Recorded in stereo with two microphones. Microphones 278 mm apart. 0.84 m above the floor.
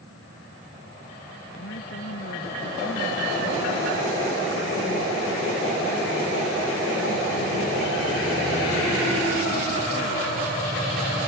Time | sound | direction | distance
1.6 | a woman speaking | 45° left (ahead or behind) | ?